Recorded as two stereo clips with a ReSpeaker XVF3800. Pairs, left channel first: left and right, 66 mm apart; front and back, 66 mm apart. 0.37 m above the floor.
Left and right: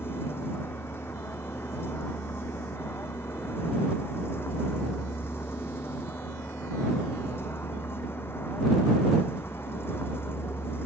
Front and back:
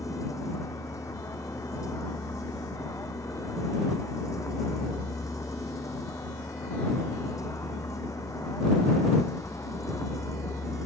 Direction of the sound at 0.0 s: 40° left.